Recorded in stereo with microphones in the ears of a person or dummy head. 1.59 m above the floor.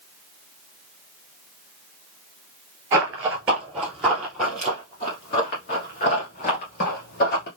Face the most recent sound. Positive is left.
turn(degrees=35)  # may be behind; listen again after turning